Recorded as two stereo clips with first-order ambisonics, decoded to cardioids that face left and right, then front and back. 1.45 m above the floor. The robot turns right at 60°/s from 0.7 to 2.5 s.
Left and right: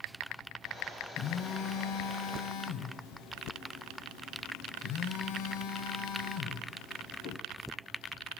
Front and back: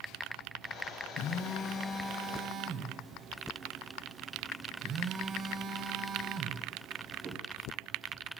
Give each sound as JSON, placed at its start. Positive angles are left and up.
{"t": 1.2, "sound": "a phone buzzing", "azimuth_deg": 40, "distance_m": 0.7}